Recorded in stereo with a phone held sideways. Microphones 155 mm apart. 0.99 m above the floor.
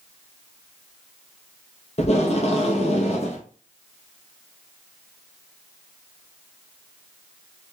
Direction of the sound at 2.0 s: 45° left (ahead or behind).